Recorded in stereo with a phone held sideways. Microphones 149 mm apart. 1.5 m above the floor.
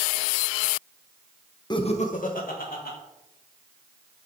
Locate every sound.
1.7 s laughter: 30° left (ahead or behind), 0.7 m; by 3.0 s 80° left, 2 m